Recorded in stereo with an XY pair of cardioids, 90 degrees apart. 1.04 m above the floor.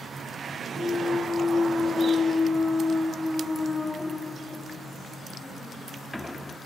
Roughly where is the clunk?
Ahead.